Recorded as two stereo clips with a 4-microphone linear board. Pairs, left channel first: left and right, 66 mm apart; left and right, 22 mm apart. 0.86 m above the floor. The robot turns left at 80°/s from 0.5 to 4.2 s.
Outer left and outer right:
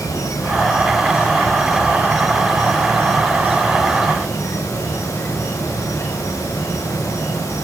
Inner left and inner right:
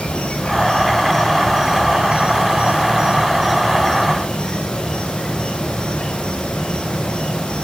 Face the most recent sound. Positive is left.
turn(degrees=155)